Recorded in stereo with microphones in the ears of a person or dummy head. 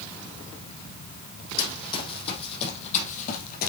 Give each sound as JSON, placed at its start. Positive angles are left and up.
{"t": 1.6, "sound": "running footsteps", "side_deg": 25, "distance_m": 4.5}